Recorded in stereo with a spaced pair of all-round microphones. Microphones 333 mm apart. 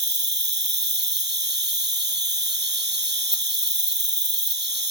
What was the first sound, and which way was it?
An insect, 30° right (ahead or behind).